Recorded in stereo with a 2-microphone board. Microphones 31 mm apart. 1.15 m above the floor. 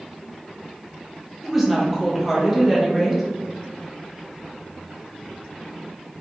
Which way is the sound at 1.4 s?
5° right (ahead or behind).